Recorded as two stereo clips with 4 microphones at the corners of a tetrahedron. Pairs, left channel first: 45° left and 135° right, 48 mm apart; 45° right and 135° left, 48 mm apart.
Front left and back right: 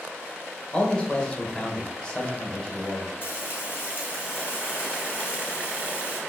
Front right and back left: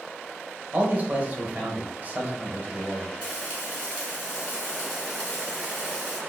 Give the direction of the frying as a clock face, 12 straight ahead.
11 o'clock.